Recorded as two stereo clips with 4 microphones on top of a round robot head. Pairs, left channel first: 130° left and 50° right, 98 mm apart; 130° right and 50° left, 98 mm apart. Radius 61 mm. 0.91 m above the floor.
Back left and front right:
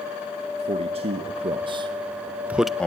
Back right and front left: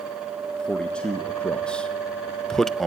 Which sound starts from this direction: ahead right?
A man speaking, at 0.6 s.